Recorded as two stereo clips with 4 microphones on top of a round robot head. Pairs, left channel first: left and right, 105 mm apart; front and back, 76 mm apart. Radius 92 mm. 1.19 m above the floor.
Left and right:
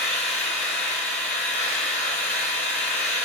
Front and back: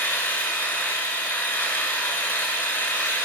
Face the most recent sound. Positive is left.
turn(degrees=60)